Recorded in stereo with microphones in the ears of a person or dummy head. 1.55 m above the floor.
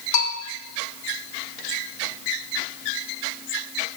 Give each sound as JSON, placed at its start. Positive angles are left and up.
{"t": 0.1, "sound": "a bell", "side_deg": 55, "distance_m": 1.4}